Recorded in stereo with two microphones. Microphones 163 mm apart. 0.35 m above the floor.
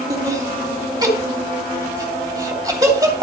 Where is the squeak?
No squeak in this recording.